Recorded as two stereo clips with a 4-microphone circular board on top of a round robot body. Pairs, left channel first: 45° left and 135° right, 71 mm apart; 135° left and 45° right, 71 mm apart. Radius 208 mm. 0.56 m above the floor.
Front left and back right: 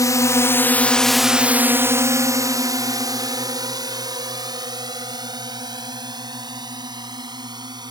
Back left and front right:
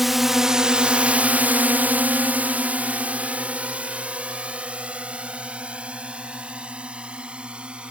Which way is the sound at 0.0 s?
40° left.